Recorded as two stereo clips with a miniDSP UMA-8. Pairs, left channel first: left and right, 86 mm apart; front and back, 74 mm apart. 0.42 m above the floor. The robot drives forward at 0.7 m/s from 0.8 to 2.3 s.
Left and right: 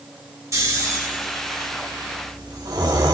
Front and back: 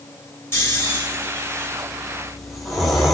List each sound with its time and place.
0.5 s snoring: 45° right, 1.8 m; by 3.1 s 90° right, 1.5 m